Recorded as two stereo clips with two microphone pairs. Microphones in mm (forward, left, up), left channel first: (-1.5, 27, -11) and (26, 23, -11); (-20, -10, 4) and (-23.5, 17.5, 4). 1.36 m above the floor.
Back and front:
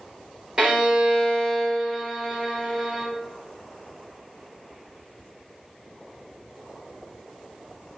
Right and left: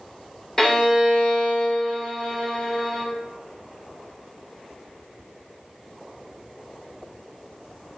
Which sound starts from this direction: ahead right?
A violin, at 0.6 s.